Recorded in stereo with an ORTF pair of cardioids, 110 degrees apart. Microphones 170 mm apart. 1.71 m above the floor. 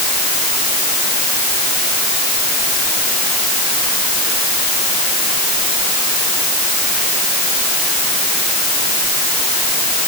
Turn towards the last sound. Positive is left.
No sound to turn to.